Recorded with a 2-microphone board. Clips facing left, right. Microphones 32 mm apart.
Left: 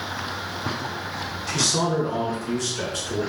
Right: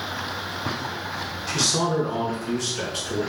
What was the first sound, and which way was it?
A man speaking, 10° right (ahead or behind).